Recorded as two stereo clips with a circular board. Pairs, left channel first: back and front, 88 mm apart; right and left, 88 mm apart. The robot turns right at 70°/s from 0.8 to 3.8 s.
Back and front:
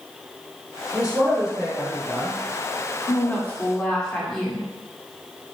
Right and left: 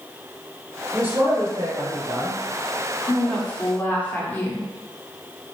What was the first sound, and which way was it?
A woman speaking, 45° left.